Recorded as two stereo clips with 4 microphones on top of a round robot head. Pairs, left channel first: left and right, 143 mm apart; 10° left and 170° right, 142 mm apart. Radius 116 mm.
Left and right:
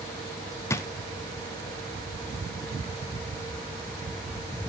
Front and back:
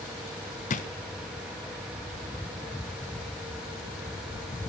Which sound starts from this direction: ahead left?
A drawer, at 0.7 s.